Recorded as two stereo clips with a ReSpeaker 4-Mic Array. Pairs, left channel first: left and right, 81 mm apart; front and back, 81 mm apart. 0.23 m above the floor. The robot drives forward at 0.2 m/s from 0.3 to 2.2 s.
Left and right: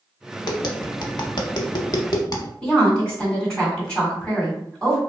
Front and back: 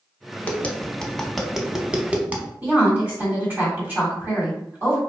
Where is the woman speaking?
155° left, 1.4 m.